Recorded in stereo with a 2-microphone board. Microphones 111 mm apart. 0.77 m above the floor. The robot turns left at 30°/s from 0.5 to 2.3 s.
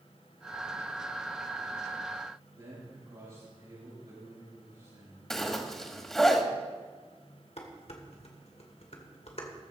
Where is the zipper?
5° left (ahead or behind), 1.4 m.